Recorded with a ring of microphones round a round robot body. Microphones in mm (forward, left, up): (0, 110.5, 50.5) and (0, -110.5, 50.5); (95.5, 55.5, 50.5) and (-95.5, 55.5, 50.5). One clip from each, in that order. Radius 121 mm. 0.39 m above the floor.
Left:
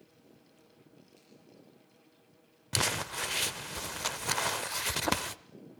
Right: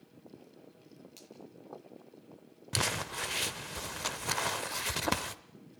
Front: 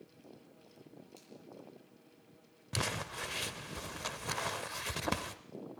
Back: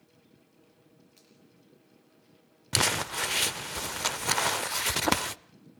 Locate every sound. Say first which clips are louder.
1.2 s a finger snap: right 7 dB, front 1 dB; 75° right, 7.5 m
2.7 s crumpling: left 2 dB, back 10 dB; 170° left, 0.6 m